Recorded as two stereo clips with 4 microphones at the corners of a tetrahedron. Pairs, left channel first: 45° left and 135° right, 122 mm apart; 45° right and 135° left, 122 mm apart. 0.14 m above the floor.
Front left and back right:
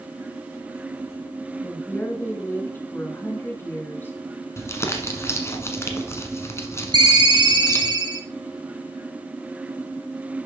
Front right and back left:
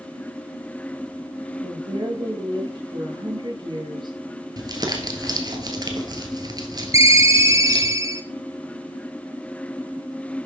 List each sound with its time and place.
1.6 s a woman speaking: 110° left, 1.5 m
4.6 s crumpling: 100° left, 1.3 m
6.9 s a ringtone: 170° right, 1.0 m